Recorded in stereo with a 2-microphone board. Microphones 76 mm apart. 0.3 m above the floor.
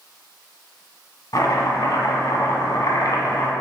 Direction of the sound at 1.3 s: 60° left (ahead or behind).